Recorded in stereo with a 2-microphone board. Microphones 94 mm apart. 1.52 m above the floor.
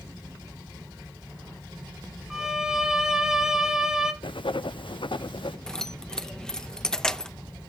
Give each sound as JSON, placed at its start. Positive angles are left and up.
{"t": 2.3, "sound": "a violin", "side_deg": -5, "distance_m": 1.1}
{"t": 4.2, "sound": "writing", "side_deg": 70, "distance_m": 0.5}
{"t": 5.7, "sound": "keys jangling", "side_deg": 10, "distance_m": 0.7}